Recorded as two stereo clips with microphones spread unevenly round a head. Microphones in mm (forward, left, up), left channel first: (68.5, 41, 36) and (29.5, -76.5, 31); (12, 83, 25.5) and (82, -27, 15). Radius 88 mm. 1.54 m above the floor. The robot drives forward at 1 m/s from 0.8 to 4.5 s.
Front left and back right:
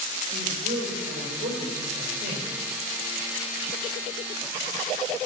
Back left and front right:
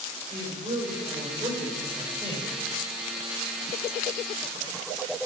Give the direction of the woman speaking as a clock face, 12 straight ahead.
4 o'clock.